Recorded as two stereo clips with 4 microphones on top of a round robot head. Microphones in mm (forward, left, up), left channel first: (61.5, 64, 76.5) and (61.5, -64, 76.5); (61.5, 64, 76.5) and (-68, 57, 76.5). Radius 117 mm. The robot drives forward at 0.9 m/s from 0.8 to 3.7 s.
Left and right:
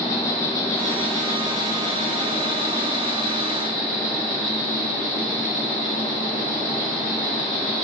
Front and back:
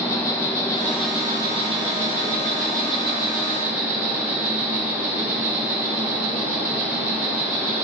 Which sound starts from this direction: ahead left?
An insect, at 0.0 s.